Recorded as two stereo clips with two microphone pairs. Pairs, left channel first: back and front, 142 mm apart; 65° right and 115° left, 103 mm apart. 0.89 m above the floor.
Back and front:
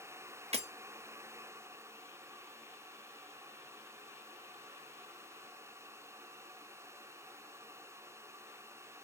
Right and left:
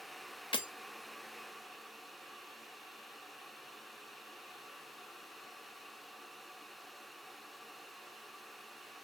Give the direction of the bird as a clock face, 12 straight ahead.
I don't hear a bird.